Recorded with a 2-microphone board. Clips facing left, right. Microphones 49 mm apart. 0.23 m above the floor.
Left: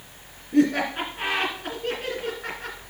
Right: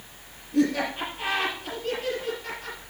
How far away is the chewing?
I don't hear chewing.